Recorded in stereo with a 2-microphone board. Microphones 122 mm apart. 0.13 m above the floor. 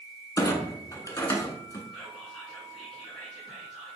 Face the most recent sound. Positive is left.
turn(degrees=5)  # may be behind; listen again after turning